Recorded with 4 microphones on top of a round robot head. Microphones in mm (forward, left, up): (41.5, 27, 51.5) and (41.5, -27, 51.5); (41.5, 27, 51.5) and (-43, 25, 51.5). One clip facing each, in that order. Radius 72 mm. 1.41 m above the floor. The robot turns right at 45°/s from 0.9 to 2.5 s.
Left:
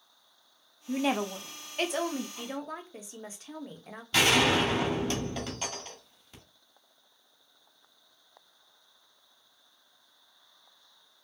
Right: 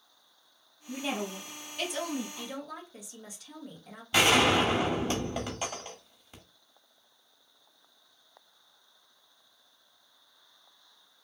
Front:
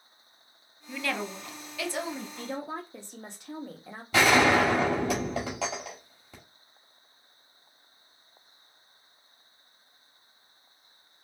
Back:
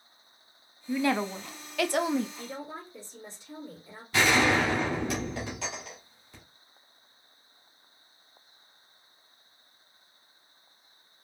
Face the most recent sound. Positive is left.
turn(degrees=-15)